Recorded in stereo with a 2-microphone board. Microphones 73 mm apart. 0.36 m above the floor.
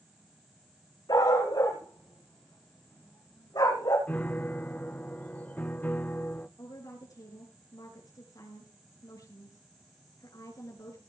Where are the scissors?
I don't hear scissors.